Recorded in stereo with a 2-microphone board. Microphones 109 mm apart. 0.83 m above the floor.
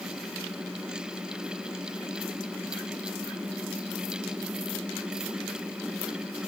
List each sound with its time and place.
Only background noise.